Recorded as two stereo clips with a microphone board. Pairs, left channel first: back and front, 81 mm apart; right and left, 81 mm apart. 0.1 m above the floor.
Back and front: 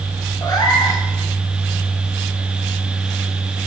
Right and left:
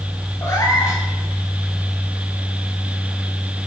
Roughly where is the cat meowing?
Behind right.